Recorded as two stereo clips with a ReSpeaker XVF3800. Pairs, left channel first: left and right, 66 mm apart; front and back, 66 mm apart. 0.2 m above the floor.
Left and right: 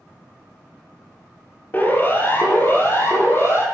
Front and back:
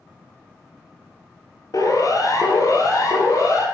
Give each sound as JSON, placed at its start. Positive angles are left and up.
{"t": 1.7, "sound": "a siren", "azimuth_deg": 30, "distance_m": 3.5}